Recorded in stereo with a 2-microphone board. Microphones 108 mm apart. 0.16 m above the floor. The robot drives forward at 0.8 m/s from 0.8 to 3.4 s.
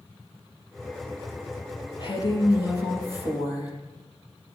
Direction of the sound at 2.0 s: 45° left (ahead or behind).